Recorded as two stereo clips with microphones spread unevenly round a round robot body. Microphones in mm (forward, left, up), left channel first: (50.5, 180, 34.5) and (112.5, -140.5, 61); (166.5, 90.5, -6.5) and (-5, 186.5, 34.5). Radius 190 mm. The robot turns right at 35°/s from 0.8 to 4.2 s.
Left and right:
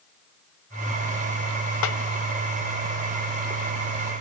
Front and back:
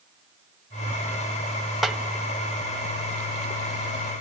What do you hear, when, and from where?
1.8 s a snare drum: 60° left, 1.0 m; by 2.0 s 65° left, 1.0 m